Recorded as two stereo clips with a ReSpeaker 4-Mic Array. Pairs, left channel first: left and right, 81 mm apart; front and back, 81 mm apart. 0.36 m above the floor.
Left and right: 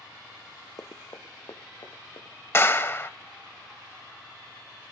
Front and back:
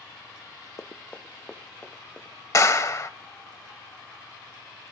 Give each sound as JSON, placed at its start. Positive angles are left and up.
{"t": 0.8, "sound": "running footsteps", "azimuth_deg": 55, "distance_m": 1.2}
{"t": 2.5, "sound": "a clap", "azimuth_deg": 40, "distance_m": 1.1}